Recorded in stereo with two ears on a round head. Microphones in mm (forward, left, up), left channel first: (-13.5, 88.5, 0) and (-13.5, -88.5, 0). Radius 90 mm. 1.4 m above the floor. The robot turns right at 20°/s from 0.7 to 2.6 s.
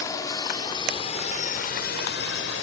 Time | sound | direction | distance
0.0 | a drone | 15° left (ahead or behind) | ?